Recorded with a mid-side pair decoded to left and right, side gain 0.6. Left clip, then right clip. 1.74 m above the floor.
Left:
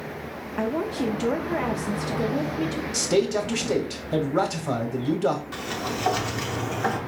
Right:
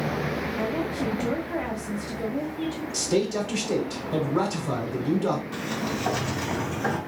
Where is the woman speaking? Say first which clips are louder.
Left 6 dB; 40° left, 0.6 m.